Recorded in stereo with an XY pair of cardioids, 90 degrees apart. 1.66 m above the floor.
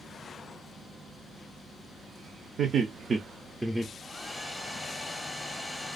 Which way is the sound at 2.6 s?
65° right.